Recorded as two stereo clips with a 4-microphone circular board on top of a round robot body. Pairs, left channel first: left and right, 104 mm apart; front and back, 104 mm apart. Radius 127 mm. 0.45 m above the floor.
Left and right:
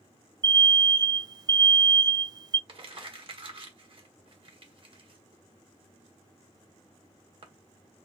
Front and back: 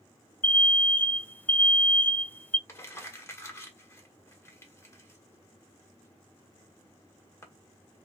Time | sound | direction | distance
0.4 | an alarm | 65° right | 0.5 m
2.7 | crumpling | 60° right | 1.9 m